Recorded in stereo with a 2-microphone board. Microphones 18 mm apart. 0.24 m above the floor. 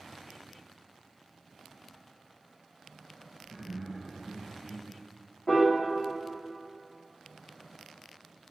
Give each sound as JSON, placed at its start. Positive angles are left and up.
{"t": 3.4, "sound": "laughter", "side_deg": -40, "distance_m": 2.0}
{"t": 5.5, "sound": "a piano", "side_deg": 75, "distance_m": 1.7}